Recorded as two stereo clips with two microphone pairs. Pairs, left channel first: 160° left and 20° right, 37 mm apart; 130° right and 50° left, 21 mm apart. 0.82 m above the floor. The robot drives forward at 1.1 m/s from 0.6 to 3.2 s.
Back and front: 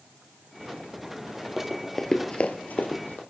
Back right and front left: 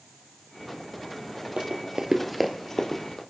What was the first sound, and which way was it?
Running footsteps, 55° left.